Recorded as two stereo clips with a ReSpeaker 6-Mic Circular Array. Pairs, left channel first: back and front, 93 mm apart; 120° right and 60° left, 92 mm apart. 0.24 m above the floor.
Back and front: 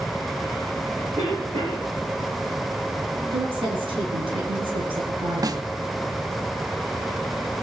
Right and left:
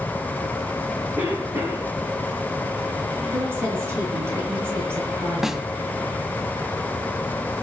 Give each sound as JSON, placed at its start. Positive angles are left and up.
{"t": 1.2, "sound": "a cough", "azimuth_deg": 0, "distance_m": 6.0}
{"t": 3.3, "sound": "a woman speaking", "azimuth_deg": 0, "distance_m": 4.5}
{"t": 5.4, "sound": "a snare drum", "azimuth_deg": -25, "distance_m": 0.7}